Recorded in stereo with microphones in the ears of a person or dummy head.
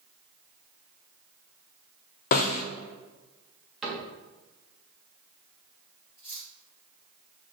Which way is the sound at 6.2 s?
35° left (ahead or behind).